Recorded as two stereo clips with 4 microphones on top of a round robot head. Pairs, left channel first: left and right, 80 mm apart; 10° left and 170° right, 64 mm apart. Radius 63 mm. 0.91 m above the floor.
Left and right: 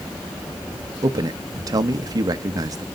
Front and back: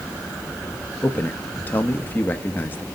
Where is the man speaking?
50° right, 0.9 m.